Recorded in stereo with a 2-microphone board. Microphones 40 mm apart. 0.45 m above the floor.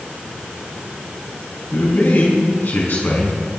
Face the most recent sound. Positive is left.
turn(degrees=60)  # may be behind; listen again after turning